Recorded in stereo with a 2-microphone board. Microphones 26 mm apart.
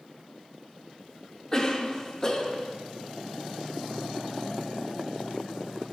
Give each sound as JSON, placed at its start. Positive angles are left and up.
{"t": 1.5, "sound": "a cough", "side_deg": 25, "distance_m": 0.7}